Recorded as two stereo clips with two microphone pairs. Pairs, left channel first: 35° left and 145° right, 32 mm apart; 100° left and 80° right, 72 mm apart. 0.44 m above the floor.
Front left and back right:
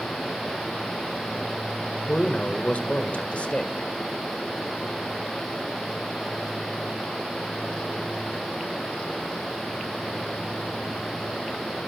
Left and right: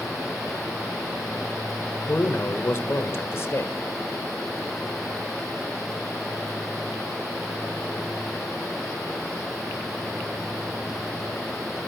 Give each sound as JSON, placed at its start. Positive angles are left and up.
{"t": 2.1, "sound": "a man speaking", "azimuth_deg": 60, "distance_m": 1.7}